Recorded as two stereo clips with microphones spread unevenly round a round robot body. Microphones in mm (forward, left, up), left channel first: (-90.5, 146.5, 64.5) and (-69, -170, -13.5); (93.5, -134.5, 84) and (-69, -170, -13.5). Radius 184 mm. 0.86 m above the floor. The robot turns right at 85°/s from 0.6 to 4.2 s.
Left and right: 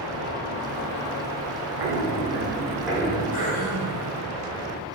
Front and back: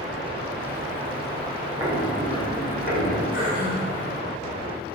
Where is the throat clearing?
40° left, 2 m; by 4.0 s 100° left, 2 m.